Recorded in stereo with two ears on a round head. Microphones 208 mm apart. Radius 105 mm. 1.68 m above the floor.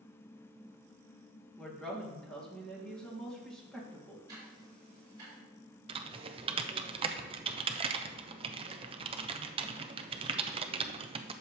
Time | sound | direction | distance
1.6 | a woman speaking | 5° left (ahead or behind) | 2 m
4.3 | ticking | 20° right (ahead or behind) | 5 m
5.9 | typing on a keyboard | 25° right (ahead or behind) | 0.6 m